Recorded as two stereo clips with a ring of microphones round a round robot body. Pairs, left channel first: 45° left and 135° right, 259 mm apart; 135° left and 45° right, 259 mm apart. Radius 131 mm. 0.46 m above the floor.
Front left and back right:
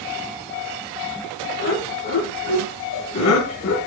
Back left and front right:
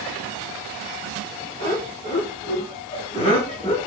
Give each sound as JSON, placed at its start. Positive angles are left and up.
{"t": 1.6, "sound": "laughter", "azimuth_deg": 65, "distance_m": 3.5}